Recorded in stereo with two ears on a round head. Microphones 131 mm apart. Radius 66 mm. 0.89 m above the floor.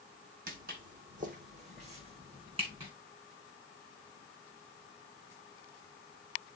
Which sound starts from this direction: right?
Footsteps, at 0.5 s.